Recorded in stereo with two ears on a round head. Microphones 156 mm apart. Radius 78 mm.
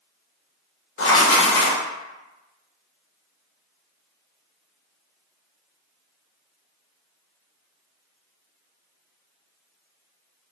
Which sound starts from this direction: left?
Writing, at 1.0 s.